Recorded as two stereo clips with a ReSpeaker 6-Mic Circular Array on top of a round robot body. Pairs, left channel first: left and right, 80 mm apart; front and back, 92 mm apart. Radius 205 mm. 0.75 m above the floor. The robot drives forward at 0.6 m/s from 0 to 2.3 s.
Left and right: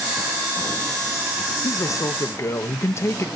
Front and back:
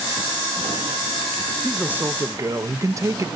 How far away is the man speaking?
About 0.7 m.